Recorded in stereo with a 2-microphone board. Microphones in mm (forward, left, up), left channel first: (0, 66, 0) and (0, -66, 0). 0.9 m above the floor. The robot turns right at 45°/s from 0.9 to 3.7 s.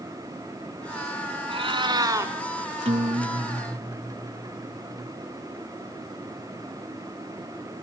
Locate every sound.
1.5 s a cat meowing: 65° right, 1.2 m; by 2.3 s 25° right, 1.2 m
2.9 s a guitar: 75° right, 1.0 m; by 5.1 s 40° right, 1.0 m